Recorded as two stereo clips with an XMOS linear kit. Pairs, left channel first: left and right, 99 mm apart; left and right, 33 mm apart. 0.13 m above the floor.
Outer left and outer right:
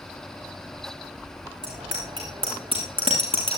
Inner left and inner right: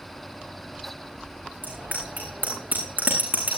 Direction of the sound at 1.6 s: 65° right (ahead or behind).